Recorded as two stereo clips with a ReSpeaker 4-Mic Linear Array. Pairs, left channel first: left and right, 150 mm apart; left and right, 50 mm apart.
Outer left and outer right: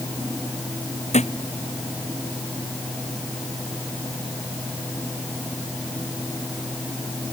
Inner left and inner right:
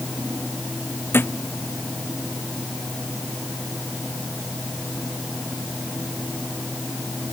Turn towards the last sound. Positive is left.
turn(degrees=50)  # may be behind; listen again after turning